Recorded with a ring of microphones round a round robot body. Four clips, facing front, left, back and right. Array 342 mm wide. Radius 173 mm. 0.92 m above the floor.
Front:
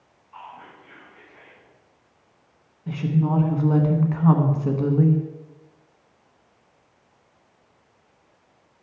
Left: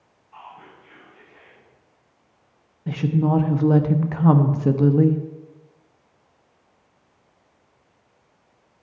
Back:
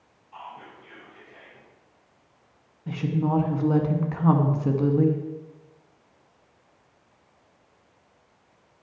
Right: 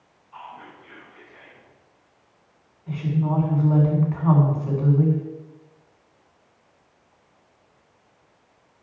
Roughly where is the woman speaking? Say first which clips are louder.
Left 4 dB, front 2 dB; left.